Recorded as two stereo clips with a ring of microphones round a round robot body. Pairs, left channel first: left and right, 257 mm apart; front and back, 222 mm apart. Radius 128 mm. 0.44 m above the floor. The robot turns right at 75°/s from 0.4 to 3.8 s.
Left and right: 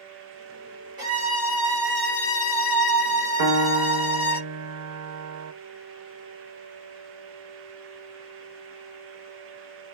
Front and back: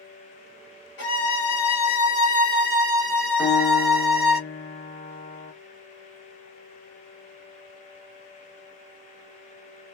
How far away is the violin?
About 2.0 m.